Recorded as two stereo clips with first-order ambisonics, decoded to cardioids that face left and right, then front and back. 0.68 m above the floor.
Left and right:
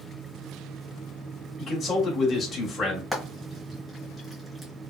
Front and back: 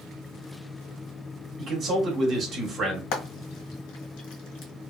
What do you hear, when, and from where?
1.6 s a man speaking: 150° left, 1.0 m
3.1 s frying: 10° right, 1.1 m